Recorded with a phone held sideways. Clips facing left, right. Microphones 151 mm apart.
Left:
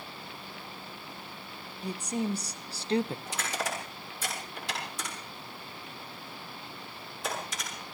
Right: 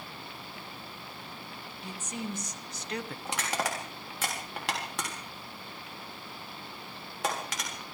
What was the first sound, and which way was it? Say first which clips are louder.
A woman speaking: left 7 dB; 35° left (ahead or behind).